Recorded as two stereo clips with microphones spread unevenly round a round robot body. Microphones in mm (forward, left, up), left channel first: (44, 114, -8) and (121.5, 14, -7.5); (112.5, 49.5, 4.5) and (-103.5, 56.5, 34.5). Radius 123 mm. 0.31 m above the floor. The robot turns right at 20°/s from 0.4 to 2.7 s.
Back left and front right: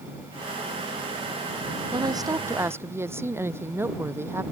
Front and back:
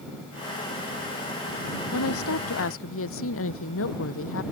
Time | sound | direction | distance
1.9 | a woman speaking | 5° left | ?